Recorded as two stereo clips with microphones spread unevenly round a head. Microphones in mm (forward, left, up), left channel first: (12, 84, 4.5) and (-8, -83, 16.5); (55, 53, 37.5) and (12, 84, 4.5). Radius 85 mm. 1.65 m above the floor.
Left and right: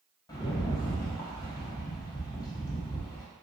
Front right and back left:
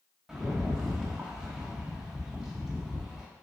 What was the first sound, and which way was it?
A rattle, 20° left.